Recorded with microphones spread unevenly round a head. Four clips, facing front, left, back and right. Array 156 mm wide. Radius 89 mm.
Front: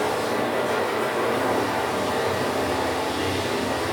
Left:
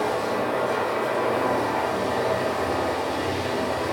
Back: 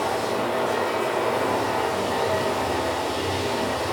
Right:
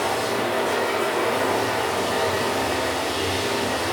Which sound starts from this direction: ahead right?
Running water, at 0.0 s.